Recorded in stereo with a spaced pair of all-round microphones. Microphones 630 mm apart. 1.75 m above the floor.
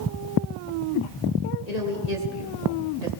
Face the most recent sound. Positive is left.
turn(degrees=85)